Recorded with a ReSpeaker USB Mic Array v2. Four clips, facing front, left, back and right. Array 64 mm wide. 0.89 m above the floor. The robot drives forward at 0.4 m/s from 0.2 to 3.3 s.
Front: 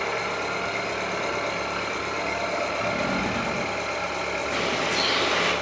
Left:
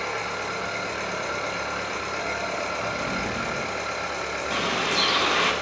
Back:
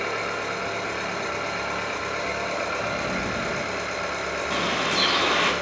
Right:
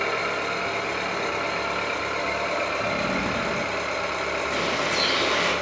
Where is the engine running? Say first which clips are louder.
Right 3 dB, even; 90° right, 3.5 m; by 5.6 s 110° right, 4 m.